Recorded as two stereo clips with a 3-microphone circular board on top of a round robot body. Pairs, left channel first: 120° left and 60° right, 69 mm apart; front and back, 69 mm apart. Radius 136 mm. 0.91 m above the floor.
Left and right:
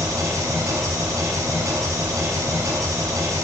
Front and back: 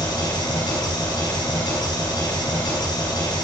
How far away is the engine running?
About 5.5 m.